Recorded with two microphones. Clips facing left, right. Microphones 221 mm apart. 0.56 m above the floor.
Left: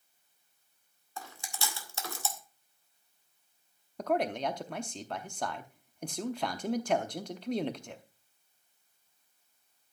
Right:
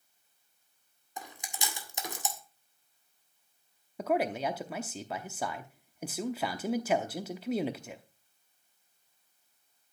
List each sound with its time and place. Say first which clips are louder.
1.2 s chewing: even; 20° right (ahead or behind), 1.8 m
4.0 s a man speaking: right 1 dB; 5° right (ahead or behind), 0.7 m